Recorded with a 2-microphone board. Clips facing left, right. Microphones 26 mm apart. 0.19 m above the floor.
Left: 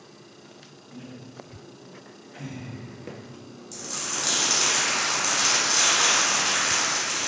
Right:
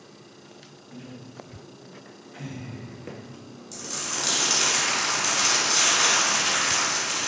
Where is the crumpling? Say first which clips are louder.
Even; 5° right (ahead or behind), 0.8 m.